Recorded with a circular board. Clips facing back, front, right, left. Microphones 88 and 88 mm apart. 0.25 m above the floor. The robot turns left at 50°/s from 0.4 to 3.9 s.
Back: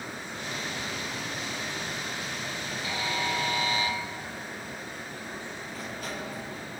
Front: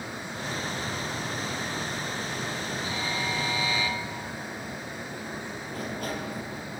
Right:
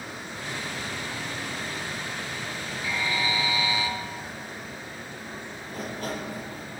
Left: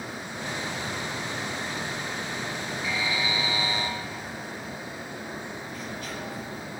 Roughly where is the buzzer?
Behind.